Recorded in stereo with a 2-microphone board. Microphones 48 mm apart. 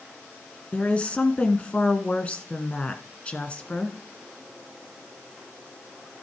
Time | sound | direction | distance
0.7 | a woman speaking | 25° left (ahead or behind) | 1.5 m